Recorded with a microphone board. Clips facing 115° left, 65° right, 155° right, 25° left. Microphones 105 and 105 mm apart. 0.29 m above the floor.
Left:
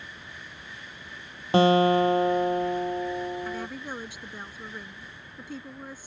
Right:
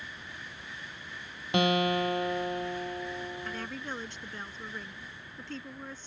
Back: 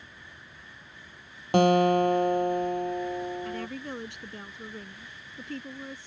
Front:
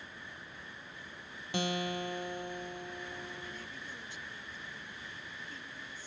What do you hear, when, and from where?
1.5 s a guitar: 170° left
3.5 s a woman speaking: 165° right